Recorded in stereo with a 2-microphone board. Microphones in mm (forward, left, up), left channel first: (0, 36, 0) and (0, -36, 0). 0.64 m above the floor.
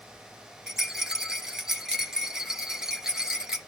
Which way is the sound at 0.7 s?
10° right (ahead or behind).